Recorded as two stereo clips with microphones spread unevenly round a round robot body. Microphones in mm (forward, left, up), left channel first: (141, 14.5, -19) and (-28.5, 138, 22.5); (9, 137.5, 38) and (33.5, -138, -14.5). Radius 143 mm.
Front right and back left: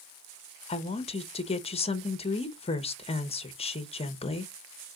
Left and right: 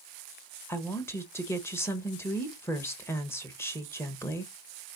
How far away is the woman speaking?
About 0.9 m.